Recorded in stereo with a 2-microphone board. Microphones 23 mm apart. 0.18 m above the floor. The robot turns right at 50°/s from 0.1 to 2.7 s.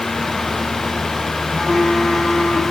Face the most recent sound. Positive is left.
turn(degrees=65)